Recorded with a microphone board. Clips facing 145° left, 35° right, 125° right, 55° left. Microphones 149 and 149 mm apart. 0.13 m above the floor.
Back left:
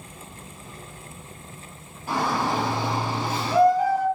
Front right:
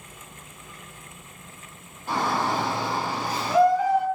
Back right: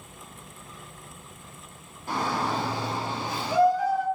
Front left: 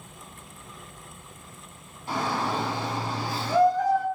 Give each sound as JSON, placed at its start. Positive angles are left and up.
{"t": 2.1, "sound": "a shout", "azimuth_deg": -135, "distance_m": 1.7}